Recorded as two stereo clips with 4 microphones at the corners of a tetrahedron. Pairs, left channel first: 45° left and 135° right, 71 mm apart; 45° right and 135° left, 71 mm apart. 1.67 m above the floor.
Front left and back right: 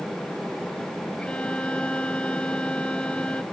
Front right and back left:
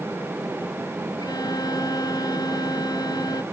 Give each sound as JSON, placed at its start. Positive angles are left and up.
{"t": 1.2, "sound": "a violin", "azimuth_deg": -30}